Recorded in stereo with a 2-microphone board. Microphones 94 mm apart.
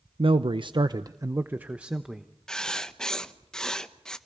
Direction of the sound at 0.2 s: 70° right (ahead or behind).